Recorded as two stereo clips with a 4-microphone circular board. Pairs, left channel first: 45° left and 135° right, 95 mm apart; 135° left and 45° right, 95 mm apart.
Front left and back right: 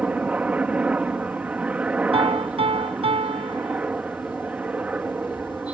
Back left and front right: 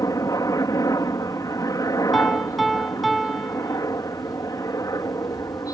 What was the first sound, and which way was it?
A helicopter, 155° left.